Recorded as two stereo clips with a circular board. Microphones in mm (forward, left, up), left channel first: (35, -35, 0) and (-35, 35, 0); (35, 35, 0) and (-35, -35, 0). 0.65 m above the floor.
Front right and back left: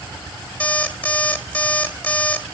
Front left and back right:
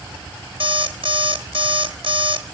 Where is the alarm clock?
125° right, 1.6 m.